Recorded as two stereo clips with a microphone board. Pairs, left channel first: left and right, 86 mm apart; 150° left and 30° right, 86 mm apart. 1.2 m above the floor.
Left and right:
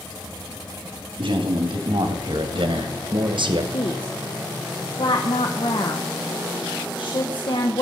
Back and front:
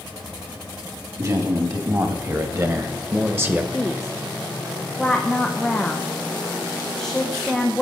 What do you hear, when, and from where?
1.2 s a man speaking: 75° right, 3 m; by 3.6 s 100° right, 1.2 m
3.7 s a woman speaking: 65° left, 1.1 m